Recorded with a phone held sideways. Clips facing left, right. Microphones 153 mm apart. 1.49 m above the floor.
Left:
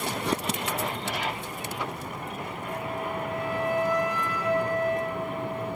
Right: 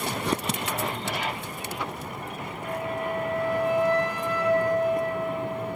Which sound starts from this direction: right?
A flute, at 2.6 s.